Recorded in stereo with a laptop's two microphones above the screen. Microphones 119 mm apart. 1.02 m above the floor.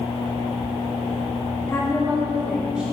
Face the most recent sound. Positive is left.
turn(degrees=-10)  # may be behind; listen again after turning